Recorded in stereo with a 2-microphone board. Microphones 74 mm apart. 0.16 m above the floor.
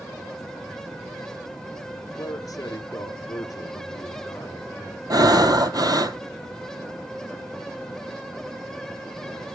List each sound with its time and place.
2.1 s a man speaking: 50° left (ahead or behind), 2 m
5.1 s breathing: 60° right (ahead or behind), 1.0 m